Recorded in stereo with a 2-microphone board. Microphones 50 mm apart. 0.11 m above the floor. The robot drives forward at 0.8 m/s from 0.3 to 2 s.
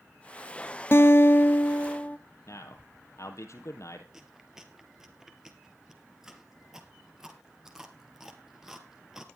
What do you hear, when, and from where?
0.9 s a guitar: 50° left (ahead or behind), 0.7 m; by 2.2 s 30° left (ahead or behind), 1.0 m
2.5 s a man speaking: 65° left (ahead or behind), 3 m
4.1 s chewing: 10° right (ahead or behind), 1.9 m